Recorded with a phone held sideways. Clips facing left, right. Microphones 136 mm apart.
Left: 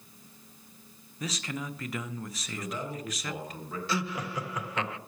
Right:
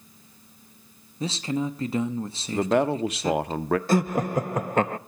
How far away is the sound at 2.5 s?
About 0.7 m.